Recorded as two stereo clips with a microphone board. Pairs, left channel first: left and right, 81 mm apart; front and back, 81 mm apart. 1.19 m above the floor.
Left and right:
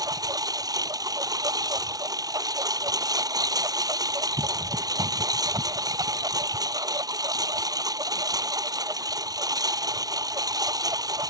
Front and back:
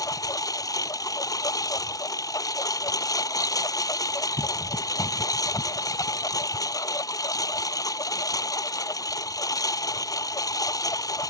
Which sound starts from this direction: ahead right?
A lawn mower, at 0.0 s.